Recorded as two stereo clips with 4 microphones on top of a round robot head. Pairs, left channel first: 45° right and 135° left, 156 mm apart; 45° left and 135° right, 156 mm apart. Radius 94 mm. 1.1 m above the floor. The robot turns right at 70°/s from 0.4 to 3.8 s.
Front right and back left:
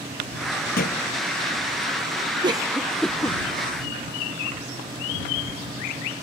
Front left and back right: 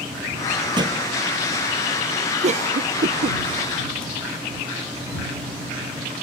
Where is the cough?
170° right; by 3.4 s 105° right.